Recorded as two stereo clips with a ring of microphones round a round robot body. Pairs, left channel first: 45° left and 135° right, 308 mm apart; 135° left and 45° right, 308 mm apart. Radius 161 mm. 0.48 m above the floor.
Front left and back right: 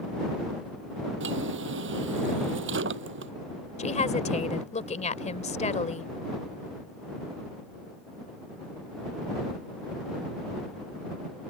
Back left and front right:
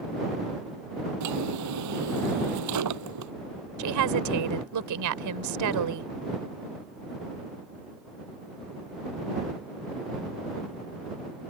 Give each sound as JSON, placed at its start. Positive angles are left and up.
{"t": 1.2, "sound": "a drawer", "azimuth_deg": -80}
{"t": 3.8, "sound": "a woman speaking", "azimuth_deg": -25}